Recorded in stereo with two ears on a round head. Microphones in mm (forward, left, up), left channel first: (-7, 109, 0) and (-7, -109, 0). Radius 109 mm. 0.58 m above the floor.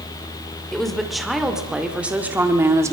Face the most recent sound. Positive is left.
turn(degrees=-15)  # may be behind; listen again after turning